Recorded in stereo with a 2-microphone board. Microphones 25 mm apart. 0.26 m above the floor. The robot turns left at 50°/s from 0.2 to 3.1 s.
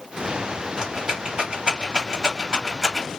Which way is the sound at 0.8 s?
30° right (ahead or behind).